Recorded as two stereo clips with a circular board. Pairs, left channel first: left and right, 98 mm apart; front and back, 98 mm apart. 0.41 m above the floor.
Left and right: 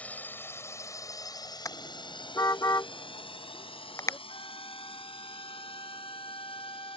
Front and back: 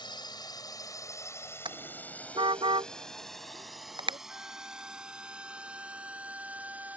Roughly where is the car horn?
Behind left.